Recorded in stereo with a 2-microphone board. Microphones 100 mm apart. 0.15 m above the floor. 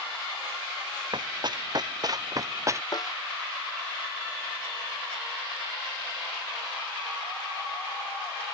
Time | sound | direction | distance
1.1 | running footsteps | 50° right (ahead or behind) | ?
2.9 | a snare drum | 45° left (ahead or behind) | ?